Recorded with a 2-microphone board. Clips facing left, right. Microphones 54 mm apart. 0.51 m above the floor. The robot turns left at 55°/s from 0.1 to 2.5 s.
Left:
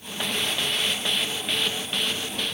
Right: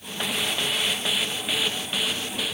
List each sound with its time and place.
Only background noise.